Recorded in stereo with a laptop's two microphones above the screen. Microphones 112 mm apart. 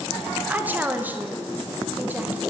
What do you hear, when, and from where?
0.5 s a woman speaking: 15° right (ahead or behind), 0.7 m